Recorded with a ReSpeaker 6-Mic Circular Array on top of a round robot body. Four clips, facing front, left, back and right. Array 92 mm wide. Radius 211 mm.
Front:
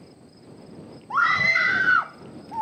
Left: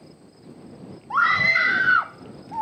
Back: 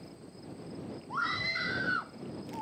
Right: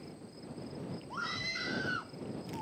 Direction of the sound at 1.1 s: 55° left.